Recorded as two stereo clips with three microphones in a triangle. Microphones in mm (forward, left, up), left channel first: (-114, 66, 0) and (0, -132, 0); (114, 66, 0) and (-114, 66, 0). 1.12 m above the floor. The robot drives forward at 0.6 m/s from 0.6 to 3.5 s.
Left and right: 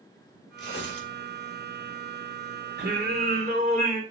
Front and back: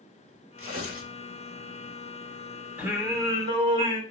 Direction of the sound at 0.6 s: 160° left.